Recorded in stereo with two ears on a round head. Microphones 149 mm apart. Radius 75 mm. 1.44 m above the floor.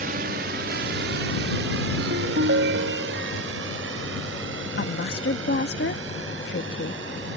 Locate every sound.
0.0 s a drone: 55° right (ahead or behind); by 7.4 s 85° right
2.0 s a ringtone: 70° right (ahead or behind)
4.8 s a woman speaking: 60° left (ahead or behind)